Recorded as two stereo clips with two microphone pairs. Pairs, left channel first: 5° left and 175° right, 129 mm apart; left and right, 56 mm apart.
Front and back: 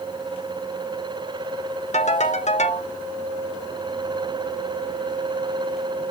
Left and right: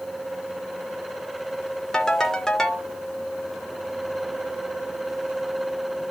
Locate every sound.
1.9 s a ringtone: 10° left, 1.1 m